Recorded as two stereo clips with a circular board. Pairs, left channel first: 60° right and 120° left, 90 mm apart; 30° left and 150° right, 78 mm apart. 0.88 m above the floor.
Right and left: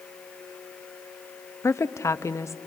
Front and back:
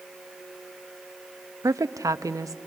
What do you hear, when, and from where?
1.6 s a woman speaking: 115° right, 0.6 m